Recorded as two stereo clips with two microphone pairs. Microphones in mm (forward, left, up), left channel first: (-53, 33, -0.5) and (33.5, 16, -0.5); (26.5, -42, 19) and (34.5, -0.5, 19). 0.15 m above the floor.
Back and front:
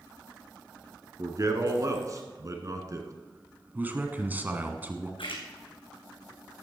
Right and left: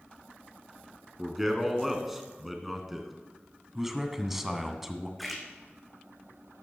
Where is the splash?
170° left, 2 m.